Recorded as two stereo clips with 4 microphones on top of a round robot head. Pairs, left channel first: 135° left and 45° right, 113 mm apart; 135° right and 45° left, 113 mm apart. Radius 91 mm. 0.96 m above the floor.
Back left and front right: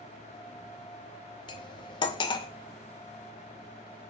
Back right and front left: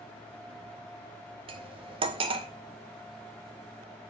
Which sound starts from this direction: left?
Cutlery clinking, at 1.5 s.